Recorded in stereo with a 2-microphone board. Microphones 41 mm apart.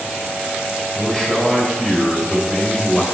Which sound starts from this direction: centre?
A man speaking, at 0.9 s.